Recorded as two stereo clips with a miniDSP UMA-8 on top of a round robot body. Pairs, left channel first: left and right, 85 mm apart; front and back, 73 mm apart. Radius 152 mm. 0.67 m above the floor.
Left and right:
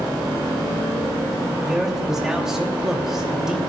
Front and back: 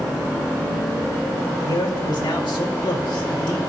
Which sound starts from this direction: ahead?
A man speaking, at 1.6 s.